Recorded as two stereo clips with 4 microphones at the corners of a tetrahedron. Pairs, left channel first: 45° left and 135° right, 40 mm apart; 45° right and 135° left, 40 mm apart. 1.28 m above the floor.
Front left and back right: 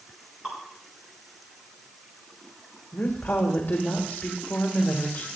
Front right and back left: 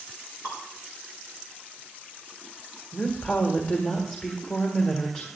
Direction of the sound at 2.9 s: 10° left.